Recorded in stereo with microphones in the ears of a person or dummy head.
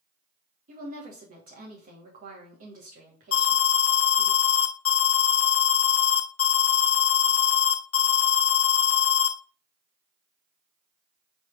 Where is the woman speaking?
50° right (ahead or behind), 2.5 m.